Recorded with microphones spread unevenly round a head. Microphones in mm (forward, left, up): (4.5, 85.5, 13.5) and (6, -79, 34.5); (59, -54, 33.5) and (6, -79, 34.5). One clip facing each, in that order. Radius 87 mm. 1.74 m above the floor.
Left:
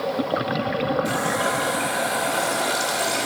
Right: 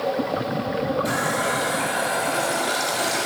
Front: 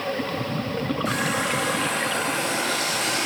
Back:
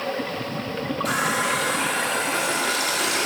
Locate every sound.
1.1 s a running tap: 165° right, 2.5 m